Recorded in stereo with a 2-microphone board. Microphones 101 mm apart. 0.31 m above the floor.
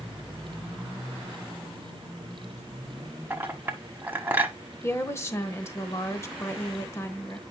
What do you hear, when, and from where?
3.3 s a clink: 20° right (ahead or behind), 1.3 m
4.8 s a woman speaking: 25° left (ahead or behind), 1.1 m